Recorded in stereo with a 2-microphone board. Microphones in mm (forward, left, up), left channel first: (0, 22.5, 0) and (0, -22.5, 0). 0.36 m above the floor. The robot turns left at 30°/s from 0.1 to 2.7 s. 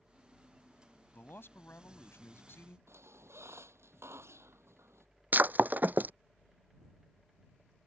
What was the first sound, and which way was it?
A man speaking, 120° left.